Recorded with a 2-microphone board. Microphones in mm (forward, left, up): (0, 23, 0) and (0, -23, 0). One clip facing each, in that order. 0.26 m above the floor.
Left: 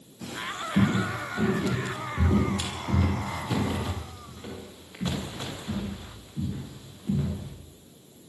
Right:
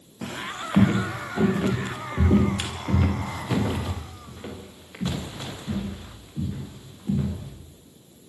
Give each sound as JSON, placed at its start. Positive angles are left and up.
{"t": 0.2, "sound": "footsteps", "side_deg": -50, "distance_m": 6.5}